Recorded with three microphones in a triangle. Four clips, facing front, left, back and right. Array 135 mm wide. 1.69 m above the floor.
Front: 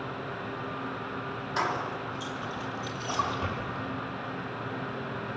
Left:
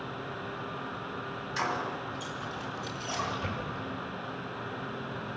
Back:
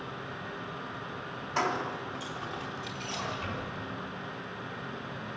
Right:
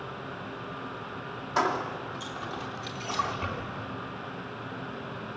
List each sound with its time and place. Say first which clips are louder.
1.6 s keys jangling: right 5 dB, even; 100° right, 3 m; by 3.2 s 120° right, 4.5 m
3.0 s a splash: right 4 dB, front 7 dB; 45° right, 7.5 m